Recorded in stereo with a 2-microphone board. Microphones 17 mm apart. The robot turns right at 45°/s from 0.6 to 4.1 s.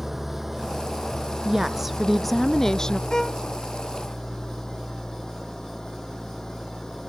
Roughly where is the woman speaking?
Ahead right.